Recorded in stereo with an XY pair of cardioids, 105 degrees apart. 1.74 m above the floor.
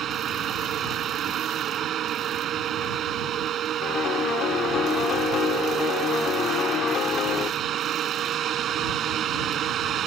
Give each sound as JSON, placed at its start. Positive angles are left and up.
{"t": 0.0, "sound": "a fan", "azimuth_deg": -65}
{"t": 3.8, "sound": "a piano", "azimuth_deg": 60}